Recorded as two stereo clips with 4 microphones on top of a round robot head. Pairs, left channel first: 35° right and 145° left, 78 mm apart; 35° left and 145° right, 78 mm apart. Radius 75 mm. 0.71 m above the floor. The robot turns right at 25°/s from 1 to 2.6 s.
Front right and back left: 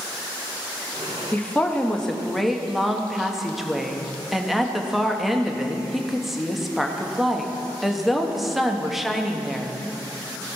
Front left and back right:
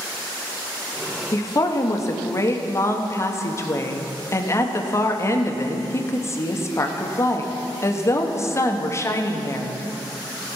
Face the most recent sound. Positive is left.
turn(degrees=60)